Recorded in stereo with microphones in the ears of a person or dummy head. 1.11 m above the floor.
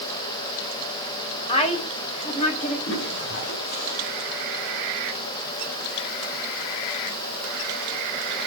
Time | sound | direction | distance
1.5 | a woman speaking | 35° left (ahead or behind) | 4.5 m
2.9 | a toilet flushing | 60° left (ahead or behind) | 7.5 m